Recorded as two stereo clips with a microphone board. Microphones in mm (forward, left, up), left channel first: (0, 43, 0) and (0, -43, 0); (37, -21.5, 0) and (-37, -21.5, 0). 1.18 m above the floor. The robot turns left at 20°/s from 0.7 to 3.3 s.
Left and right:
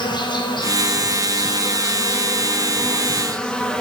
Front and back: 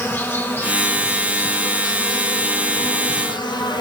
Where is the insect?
60° left, 0.8 m; by 3.8 s 10° left, 0.8 m.